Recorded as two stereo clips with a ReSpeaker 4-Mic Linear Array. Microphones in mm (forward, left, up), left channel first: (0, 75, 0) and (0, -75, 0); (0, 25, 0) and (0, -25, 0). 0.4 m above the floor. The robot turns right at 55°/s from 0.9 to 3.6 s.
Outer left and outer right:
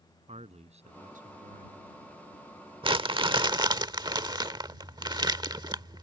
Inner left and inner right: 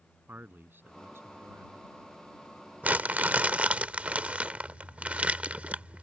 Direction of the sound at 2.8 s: 35° right (ahead or behind).